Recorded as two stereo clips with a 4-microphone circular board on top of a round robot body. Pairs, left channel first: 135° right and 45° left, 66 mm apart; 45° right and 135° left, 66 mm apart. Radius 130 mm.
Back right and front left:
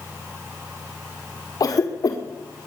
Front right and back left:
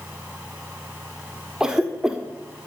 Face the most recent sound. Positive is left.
turn(degrees=-145)